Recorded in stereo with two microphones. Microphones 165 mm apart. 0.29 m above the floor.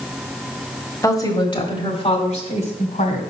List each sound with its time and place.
1.0 s a woman speaking: 20° left (ahead or behind), 1.2 m; by 3.2 s 55° left (ahead or behind), 1.8 m